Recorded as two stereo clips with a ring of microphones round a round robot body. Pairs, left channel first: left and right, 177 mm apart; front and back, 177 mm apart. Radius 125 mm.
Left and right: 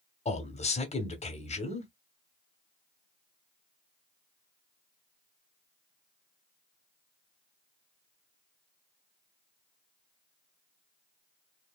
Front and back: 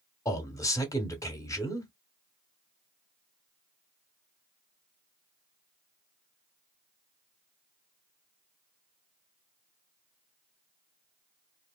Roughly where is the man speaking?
Ahead left.